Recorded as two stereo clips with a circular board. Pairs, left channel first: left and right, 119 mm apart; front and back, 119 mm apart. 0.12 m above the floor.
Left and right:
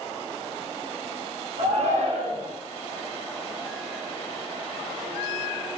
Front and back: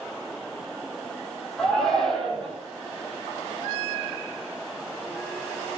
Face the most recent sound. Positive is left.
turn(degrees=-85)